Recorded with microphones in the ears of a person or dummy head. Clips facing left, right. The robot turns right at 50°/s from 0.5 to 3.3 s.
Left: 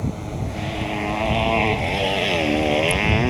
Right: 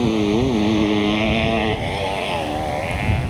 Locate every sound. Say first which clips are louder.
0.0 s a motorcycle: right 12 dB; 75° right (ahead or behind); by 3.3 s 75° left (ahead or behind)